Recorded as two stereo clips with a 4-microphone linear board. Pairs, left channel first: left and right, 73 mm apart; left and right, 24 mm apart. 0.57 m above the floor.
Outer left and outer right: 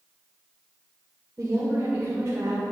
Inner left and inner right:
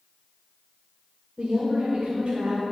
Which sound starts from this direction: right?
A woman speaking, at 1.4 s.